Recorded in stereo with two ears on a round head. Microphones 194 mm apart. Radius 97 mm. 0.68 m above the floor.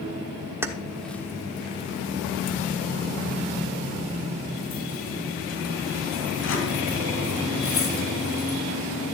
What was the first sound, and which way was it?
Keys jangling, 10° right (ahead or behind).